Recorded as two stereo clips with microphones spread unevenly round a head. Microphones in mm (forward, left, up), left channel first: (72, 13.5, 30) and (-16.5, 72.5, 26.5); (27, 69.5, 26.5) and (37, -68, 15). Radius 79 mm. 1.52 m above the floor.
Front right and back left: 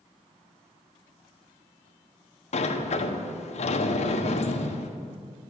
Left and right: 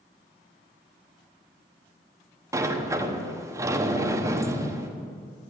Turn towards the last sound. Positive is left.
turn(degrees=-20)